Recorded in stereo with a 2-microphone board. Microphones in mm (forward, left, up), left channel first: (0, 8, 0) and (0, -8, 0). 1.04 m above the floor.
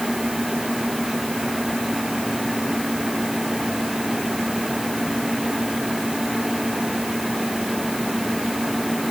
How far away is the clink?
I don't hear a clink.